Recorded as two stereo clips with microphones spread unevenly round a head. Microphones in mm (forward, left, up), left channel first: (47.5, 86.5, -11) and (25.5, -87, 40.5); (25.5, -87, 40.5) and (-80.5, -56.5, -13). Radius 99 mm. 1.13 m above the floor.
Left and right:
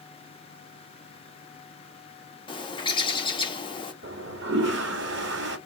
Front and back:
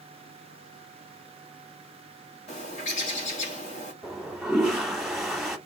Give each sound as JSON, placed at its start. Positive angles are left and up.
{"t": 2.5, "sound": "a bird", "azimuth_deg": 15, "distance_m": 1.1}
{"t": 4.0, "sound": "a toilet flushing", "azimuth_deg": -100, "distance_m": 1.3}